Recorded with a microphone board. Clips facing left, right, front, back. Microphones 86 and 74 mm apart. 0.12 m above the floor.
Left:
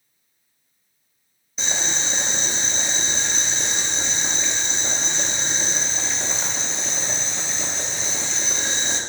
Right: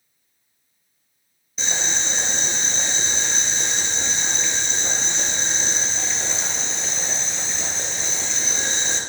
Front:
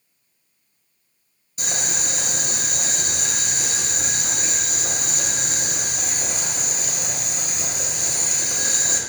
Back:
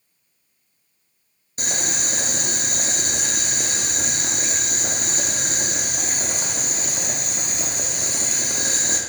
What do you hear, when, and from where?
1.6 s boiling: 175° left, 0.8 m